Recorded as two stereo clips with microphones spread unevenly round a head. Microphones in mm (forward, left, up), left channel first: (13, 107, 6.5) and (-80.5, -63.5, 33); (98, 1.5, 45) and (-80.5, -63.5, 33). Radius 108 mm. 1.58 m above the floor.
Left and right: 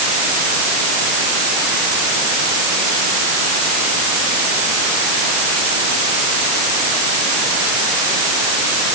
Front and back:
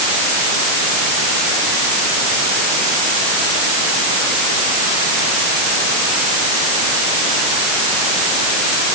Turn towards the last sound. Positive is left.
No sound to turn to.